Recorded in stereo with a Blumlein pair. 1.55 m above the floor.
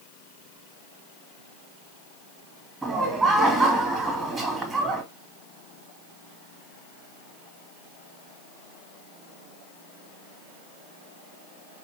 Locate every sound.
2.8 s laughter: 5° right, 2 m